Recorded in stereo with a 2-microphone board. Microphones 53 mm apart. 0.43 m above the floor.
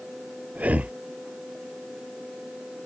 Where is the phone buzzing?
No phone buzzing in this recording.